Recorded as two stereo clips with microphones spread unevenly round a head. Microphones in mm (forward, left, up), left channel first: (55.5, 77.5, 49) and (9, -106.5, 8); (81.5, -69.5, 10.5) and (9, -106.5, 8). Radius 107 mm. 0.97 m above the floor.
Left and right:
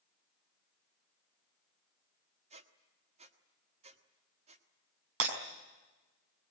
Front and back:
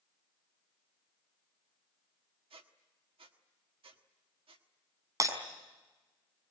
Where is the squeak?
165° right, 1.3 m.